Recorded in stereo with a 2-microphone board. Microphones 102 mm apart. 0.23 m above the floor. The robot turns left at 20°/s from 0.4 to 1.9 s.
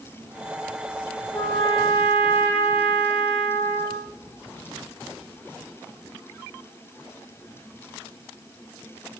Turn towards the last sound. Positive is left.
turn(degrees=50)  # may be behind; listen again after turning